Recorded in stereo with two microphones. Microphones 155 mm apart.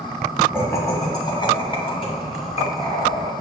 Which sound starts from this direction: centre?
Laughter, at 0.5 s.